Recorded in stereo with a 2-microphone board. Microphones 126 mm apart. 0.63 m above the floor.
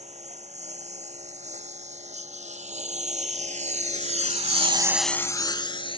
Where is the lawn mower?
60° right (ahead or behind); by 6.0 s 45° left (ahead or behind).